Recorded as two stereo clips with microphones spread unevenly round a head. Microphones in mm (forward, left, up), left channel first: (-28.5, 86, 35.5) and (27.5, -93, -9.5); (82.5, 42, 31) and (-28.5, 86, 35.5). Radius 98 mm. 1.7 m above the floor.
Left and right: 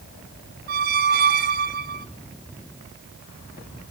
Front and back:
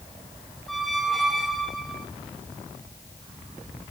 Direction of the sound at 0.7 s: 115° right.